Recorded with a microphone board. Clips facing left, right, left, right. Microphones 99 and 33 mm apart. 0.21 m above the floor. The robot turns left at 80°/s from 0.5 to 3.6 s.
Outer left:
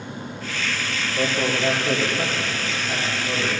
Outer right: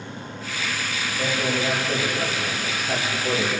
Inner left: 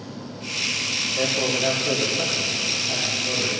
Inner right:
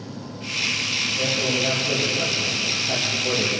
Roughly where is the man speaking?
Behind left.